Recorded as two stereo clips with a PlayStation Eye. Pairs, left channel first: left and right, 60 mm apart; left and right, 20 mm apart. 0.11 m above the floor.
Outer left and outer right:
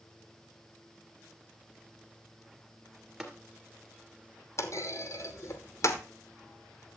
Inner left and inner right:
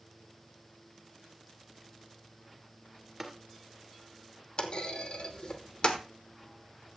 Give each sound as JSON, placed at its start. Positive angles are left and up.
{"t": 3.2, "sound": "tapping", "side_deg": -10, "distance_m": 2.0}
{"t": 4.6, "sound": "a clunk", "side_deg": 50, "distance_m": 1.1}